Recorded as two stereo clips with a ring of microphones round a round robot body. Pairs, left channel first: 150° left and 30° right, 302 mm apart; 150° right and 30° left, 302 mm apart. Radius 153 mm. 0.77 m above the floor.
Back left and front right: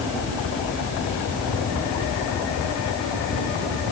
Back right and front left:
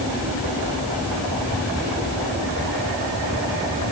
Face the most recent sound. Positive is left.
No sound to turn to.